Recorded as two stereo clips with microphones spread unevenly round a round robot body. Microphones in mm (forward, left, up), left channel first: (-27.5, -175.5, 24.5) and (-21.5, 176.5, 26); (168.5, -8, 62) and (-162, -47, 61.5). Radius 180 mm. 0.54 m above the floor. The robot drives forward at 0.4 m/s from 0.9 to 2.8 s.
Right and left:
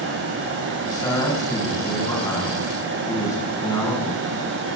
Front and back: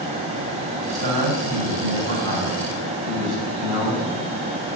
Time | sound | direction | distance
0.8 | a man speaking | 170° right | 4 m